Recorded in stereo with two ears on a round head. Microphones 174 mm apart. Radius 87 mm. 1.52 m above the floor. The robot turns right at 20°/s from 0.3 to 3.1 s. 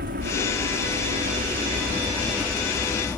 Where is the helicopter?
50° right (ahead or behind); by 3.2 s 5° left (ahead or behind).